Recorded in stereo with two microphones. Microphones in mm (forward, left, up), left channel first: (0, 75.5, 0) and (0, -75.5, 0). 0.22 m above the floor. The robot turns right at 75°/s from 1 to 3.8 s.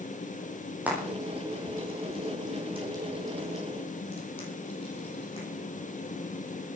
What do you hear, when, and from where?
0.9 s frying: 10° right (ahead or behind), 8.5 m; by 5.5 s 40° left (ahead or behind), 8.5 m